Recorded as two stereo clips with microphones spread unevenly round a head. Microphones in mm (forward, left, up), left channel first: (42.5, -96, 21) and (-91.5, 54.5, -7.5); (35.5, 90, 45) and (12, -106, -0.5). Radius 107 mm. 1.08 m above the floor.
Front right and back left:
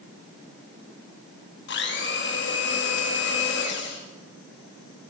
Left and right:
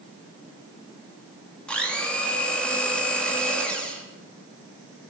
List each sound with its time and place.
1.7 s a blender: 5° right, 2 m